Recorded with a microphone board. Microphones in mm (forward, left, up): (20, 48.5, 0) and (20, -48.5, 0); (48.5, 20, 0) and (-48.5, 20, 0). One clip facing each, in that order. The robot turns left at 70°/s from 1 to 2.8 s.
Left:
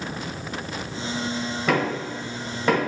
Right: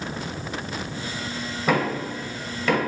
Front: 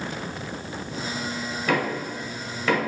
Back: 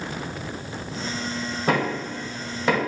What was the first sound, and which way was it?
Knocking, 170° right.